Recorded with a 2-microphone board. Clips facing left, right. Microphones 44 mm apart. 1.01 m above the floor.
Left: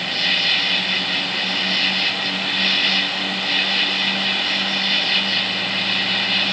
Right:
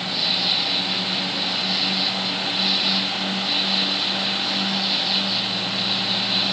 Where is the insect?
65° left (ahead or behind).